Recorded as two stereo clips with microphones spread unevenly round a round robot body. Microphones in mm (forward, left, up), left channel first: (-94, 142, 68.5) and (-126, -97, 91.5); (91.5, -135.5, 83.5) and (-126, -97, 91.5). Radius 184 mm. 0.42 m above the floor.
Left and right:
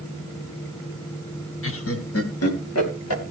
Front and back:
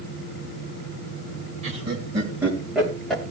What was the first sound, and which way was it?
Laughter, 105° left.